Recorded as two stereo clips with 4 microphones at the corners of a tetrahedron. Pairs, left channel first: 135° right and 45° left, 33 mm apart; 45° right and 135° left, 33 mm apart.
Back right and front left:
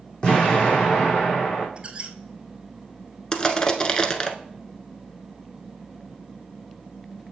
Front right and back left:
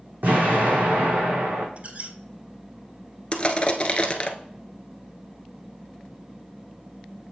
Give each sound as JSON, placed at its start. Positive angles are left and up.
{"t": 0.2, "sound": "an explosion", "azimuth_deg": 160, "distance_m": 3.0}
{"t": 1.8, "sound": "a squeak", "azimuth_deg": 95, "distance_m": 0.8}
{"t": 3.3, "sound": "crushing", "azimuth_deg": -85, "distance_m": 0.7}